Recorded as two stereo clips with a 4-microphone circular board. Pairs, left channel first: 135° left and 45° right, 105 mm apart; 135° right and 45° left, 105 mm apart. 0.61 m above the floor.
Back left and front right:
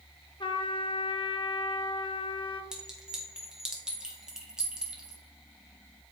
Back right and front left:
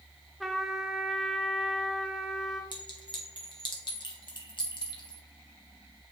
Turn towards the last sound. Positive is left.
turn(degrees=-125)